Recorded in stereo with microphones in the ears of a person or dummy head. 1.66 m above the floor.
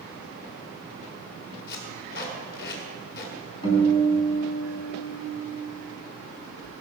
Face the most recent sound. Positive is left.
turn(degrees=30)  # may be behind; listen again after turning